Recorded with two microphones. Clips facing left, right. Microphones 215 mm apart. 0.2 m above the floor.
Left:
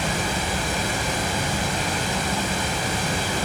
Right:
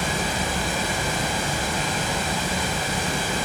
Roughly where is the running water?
Left.